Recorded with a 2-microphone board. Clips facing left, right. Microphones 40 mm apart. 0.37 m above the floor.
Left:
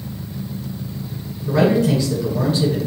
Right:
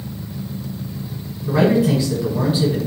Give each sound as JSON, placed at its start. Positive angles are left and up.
{"t": 1.5, "sound": "a man speaking", "side_deg": -10, "distance_m": 1.4}